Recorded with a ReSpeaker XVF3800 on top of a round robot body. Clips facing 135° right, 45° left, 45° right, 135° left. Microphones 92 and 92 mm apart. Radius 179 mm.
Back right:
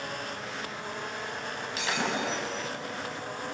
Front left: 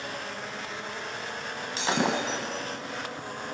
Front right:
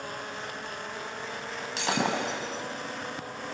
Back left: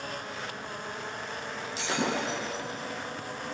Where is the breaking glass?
15° right, 3 m.